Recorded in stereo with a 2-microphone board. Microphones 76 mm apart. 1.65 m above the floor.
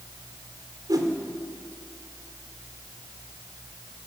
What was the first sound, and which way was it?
A whoosh, 55° right (ahead or behind).